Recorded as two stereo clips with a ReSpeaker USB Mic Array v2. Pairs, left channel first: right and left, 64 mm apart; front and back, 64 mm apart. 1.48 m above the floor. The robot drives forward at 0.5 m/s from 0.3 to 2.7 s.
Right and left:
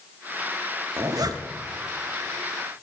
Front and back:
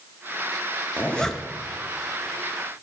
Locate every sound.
1.0 s a zipper: 65° left, 0.6 m; by 1.4 s 90° left, 0.5 m